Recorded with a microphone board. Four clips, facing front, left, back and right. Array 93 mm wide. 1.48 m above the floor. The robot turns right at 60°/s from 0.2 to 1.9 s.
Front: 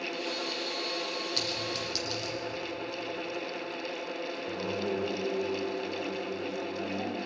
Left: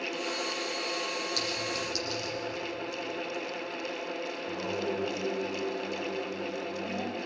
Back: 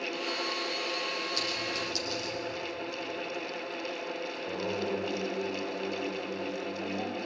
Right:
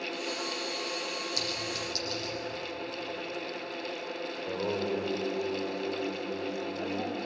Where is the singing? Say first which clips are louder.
Right 6 dB, back 1 dB; 95° right, 9.5 m.